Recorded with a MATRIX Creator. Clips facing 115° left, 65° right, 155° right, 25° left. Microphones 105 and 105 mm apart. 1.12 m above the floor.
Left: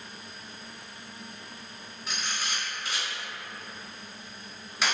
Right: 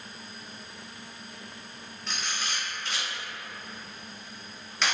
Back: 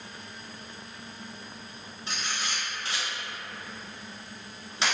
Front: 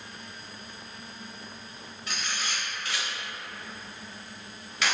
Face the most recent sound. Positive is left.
turn(degrees=-175)